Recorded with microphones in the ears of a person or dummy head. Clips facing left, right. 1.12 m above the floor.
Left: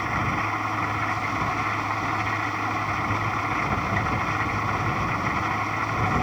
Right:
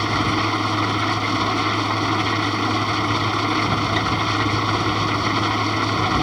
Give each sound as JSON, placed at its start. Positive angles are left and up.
{"t": 0.0, "sound": "an engine running", "side_deg": -50}